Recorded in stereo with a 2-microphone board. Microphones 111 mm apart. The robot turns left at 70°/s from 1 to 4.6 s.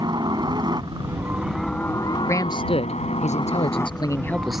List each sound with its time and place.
0.0 s a helicopter: 140° right; by 4.6 s 30° right
2.3 s a man speaking: 155° left; by 4.6 s 5° right